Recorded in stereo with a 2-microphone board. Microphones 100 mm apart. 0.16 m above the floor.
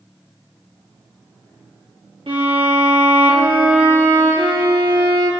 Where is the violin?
65° right (ahead or behind), 4 m.